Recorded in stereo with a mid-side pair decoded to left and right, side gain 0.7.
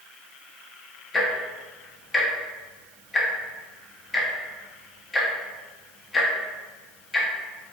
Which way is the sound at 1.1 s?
20° left.